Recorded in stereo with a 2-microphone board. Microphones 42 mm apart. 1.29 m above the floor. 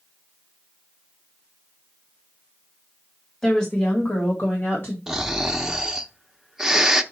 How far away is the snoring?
About 0.8 m.